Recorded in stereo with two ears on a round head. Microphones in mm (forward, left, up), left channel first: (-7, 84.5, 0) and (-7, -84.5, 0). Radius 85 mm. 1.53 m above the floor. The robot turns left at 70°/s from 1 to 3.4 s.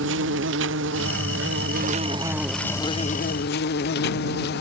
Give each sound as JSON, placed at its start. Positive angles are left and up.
{"t": 0.0, "sound": "an insect", "azimuth_deg": -75}